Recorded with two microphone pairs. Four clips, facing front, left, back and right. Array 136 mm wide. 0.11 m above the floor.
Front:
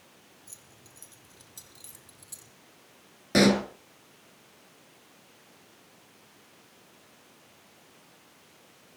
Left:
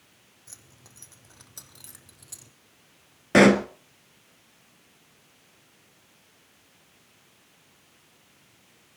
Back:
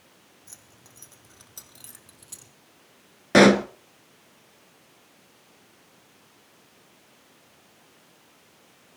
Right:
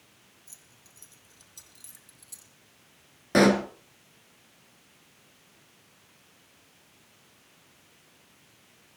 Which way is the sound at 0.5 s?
130° left.